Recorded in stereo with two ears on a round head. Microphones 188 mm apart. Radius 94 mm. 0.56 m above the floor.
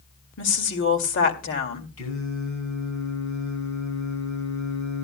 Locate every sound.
0.4 s a woman speaking: 65° left (ahead or behind), 2 m
2.0 s singing: 80° left, 6 m